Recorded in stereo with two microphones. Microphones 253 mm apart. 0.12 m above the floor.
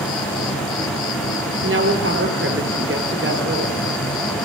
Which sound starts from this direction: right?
A woman speaking, at 1.6 s.